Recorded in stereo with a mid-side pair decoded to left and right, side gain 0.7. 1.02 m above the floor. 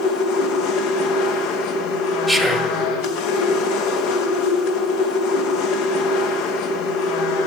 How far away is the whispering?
About 1.5 m.